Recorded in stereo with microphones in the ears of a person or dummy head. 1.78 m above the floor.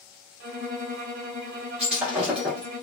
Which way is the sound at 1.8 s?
5° right (ahead or behind).